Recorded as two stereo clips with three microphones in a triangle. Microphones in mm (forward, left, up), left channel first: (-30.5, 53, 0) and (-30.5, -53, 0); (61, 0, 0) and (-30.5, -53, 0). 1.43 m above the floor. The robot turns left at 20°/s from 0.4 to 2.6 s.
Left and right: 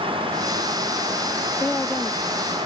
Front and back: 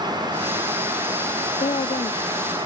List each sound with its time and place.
1.6 s a woman speaking: 15° left; by 2.2 s straight ahead